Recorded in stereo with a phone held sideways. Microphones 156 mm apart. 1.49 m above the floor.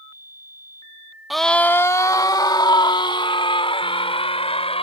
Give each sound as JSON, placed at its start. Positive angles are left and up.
{"t": 1.3, "sound": "a scream", "side_deg": 0}